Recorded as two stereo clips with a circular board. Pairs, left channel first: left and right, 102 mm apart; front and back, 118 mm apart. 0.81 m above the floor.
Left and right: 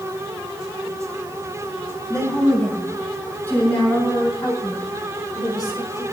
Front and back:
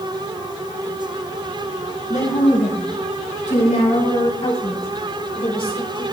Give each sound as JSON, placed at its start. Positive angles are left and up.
{"t": 2.1, "sound": "a woman speaking", "azimuth_deg": 5, "distance_m": 6.5}